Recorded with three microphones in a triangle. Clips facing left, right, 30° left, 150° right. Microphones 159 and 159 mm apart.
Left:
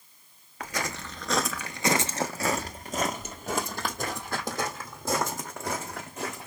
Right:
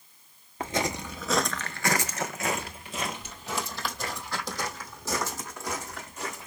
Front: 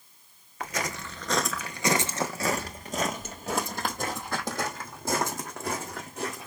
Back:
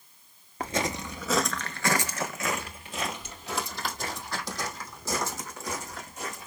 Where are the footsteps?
125° right, 0.7 m; by 6.5 s 60° left, 3 m.